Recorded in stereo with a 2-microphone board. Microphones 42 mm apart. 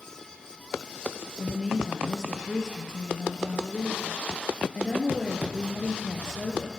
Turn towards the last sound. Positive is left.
turn(degrees=15)  # may be behind; listen again after turning